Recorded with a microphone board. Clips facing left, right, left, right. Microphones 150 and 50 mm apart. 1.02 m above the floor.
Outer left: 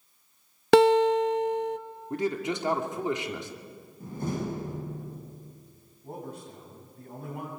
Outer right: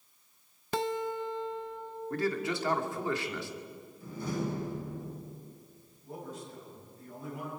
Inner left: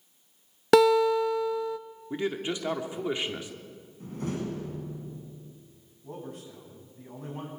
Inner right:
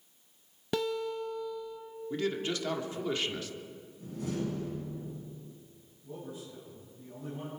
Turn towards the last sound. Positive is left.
turn(degrees=60)  # may be behind; listen again after turning